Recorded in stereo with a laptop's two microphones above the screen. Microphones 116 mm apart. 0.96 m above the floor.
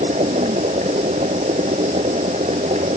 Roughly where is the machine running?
Right.